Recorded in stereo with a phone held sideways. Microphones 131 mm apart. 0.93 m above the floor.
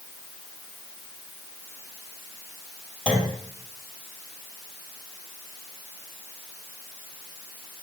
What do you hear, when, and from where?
3.1 s a clunk: 5° left (ahead or behind), 3 m